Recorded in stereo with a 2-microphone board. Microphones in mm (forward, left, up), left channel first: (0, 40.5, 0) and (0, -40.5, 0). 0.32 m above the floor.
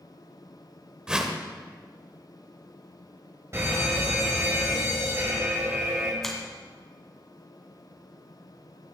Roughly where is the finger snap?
Centre.